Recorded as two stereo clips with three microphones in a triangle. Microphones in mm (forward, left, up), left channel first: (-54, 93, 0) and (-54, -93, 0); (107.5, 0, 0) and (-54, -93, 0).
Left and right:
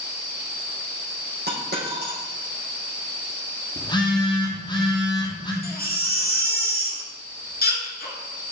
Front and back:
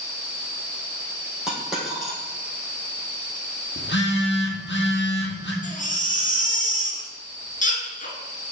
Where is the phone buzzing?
25° left, 1.7 m.